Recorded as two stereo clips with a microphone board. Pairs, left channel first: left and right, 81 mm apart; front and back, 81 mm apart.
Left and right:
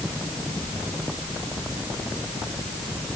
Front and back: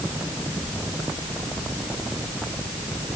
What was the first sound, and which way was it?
Only background noise.